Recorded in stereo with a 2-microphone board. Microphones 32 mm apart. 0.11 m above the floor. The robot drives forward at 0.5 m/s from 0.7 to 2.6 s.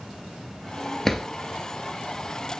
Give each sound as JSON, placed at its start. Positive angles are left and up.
{"t": 1.1, "sound": "a drawer", "side_deg": 10, "distance_m": 0.8}